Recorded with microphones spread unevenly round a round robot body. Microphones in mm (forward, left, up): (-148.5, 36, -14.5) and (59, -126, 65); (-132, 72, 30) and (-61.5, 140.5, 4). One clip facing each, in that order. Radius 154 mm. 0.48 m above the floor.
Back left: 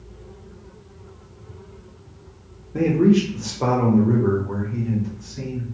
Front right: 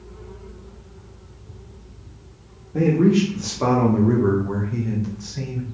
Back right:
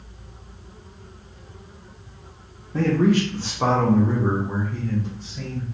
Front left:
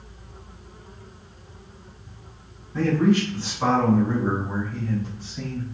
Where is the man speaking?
165° right, 1.1 m; by 5.6 s 60° right, 1.5 m.